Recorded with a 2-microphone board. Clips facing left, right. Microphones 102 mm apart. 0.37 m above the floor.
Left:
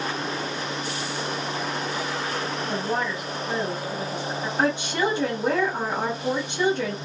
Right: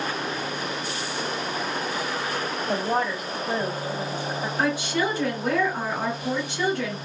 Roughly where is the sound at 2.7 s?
Right.